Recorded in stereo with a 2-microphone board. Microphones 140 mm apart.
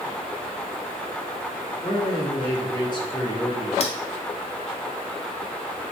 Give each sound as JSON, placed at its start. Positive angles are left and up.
{"t": 1.8, "sound": "a man speaking", "side_deg": 30, "distance_m": 1.0}
{"t": 3.8, "sound": "cutlery clinking", "side_deg": 45, "distance_m": 0.7}